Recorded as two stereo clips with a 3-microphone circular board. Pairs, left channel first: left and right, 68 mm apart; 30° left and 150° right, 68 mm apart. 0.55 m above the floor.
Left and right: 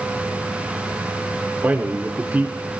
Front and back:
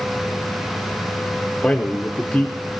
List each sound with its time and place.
1.6 s a man speaking: 40° right, 1.2 m